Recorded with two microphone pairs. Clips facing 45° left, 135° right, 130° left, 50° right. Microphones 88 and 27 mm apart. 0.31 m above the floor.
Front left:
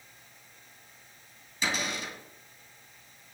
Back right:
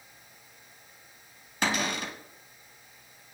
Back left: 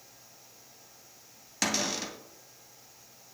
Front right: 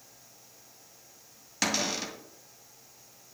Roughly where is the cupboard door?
Behind right.